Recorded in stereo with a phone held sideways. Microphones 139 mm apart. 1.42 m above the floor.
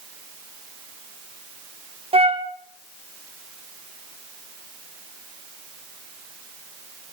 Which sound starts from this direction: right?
A flute, at 2.1 s.